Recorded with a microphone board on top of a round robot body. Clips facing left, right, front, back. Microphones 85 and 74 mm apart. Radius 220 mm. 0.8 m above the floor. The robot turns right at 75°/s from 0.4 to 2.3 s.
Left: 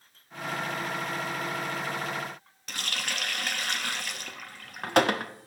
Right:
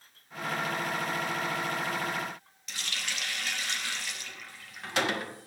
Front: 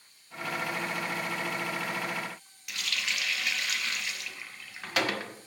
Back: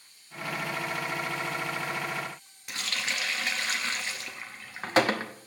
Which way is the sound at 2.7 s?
125° left.